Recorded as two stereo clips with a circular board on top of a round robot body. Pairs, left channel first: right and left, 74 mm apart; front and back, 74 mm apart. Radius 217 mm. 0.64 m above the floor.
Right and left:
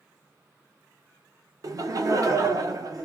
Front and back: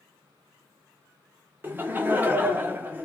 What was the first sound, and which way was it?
Laughter, 120° left.